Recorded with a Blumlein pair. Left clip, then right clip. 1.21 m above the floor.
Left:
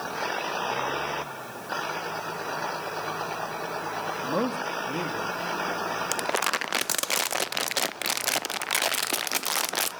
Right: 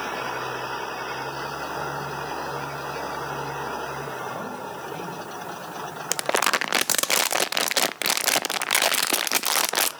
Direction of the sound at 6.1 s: 15° right.